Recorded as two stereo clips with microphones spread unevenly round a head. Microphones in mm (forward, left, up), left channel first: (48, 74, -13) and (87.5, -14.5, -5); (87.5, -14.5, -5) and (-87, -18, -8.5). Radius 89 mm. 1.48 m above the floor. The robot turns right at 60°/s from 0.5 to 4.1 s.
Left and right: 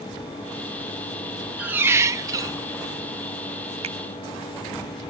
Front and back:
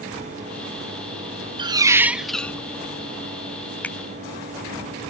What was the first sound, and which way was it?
A squeak, 130° right.